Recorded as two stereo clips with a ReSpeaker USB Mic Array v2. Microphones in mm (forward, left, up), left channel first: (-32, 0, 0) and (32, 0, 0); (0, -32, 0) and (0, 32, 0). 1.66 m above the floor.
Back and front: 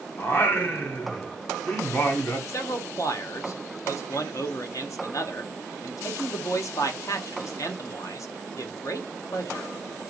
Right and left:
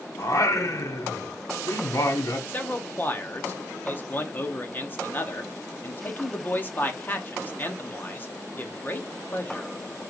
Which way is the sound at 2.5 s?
150° right.